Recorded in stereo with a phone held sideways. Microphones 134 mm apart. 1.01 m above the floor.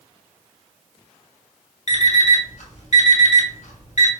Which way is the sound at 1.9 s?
55° left (ahead or behind).